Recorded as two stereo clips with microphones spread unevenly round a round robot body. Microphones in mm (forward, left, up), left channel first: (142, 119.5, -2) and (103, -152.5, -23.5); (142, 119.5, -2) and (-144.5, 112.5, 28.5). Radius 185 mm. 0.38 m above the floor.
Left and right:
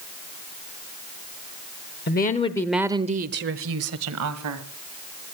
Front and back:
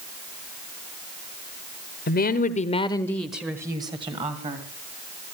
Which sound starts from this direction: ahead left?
A woman speaking, at 2.1 s.